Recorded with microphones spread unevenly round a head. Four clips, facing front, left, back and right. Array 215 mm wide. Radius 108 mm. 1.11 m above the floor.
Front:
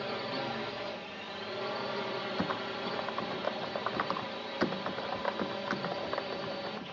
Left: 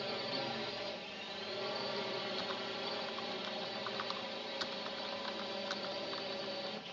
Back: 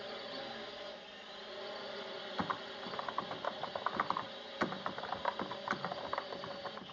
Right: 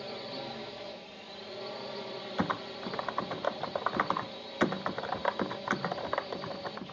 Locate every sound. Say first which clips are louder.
0.0 s a drone: even, front 9 dB; 5° right
2.4 s typing on a keyboard: right 7 dB, front 1 dB; 60° right